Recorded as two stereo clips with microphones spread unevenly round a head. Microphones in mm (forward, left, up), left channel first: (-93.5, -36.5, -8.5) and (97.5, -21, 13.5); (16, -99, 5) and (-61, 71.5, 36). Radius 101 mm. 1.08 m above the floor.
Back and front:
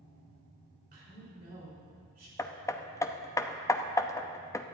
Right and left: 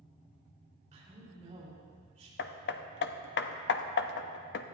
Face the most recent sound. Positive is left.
turn(degrees=-100)